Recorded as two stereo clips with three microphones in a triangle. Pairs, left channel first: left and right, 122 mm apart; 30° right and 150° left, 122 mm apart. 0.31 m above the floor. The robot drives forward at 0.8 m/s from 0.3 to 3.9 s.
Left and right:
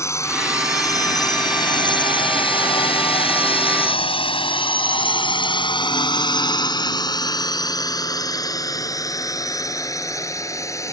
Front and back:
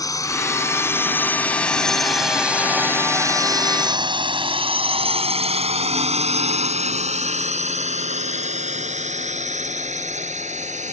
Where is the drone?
25° left; by 10.9 s 155° left.